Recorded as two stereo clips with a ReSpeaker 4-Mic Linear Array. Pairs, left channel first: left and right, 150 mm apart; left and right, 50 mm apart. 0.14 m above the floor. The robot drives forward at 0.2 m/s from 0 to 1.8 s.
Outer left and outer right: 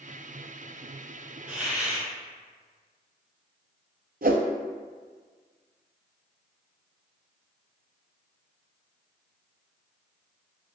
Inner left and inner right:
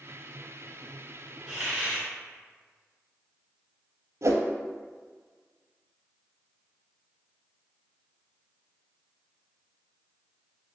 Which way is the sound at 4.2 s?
75° right (ahead or behind).